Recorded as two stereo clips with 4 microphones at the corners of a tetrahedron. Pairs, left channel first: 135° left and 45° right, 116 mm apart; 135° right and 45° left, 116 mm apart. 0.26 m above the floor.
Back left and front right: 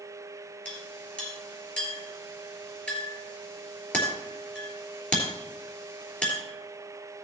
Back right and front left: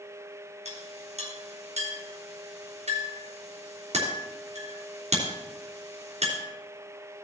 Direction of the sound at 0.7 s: 55° left.